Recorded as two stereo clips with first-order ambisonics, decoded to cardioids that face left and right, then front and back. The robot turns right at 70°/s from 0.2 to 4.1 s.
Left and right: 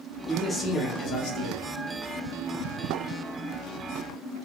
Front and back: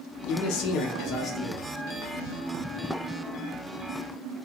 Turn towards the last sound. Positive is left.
turn(degrees=-100)